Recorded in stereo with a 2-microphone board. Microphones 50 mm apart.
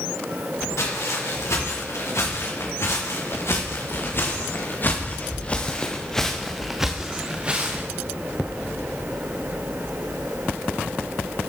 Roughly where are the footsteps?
Left.